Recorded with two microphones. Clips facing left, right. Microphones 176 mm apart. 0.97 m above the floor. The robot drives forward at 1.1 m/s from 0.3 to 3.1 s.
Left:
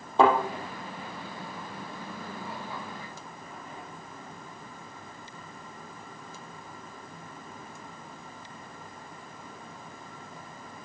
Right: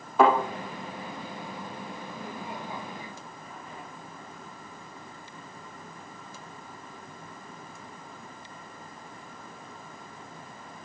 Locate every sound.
0.2 s a thud: 30° left (ahead or behind), 4 m